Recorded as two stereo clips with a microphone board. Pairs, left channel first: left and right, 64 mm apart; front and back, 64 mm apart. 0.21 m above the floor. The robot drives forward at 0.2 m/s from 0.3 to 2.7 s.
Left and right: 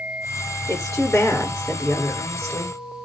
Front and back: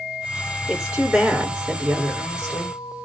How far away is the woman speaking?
About 2.5 m.